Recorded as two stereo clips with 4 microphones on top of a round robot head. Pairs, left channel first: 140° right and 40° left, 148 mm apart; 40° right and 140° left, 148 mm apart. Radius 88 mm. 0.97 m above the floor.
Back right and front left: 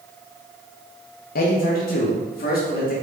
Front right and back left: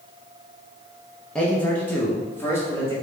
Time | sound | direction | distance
1.4 | a man speaking | 125° right | 1.0 m